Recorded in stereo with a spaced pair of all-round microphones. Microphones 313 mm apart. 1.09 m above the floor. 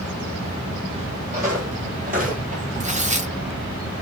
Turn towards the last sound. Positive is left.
turn(degrees=-25)  # may be behind; listen again after turning